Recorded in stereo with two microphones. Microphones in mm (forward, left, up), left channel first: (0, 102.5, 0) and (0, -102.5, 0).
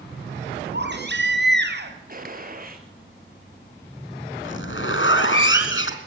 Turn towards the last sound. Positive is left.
turn(degrees=70)  # may be behind; listen again after turning